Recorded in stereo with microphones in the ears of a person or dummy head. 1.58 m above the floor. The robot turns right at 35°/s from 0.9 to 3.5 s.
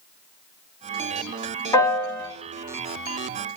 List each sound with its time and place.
1.7 s a piano: 20° left (ahead or behind), 1.1 m; by 2.3 s centre (ahead or behind), 1.1 m